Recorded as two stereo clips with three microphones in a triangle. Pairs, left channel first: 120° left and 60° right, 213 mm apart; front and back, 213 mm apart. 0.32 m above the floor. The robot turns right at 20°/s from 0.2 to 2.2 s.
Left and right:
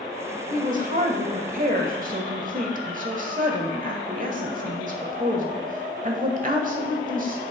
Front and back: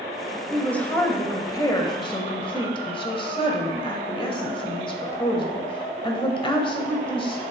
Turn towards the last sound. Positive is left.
turn(degrees=-50)